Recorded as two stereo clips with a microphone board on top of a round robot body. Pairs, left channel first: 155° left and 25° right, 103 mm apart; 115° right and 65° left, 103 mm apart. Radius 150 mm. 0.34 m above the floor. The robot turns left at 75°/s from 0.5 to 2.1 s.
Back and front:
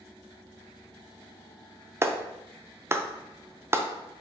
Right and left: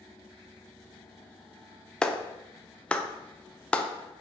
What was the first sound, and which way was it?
A clap, 40° right.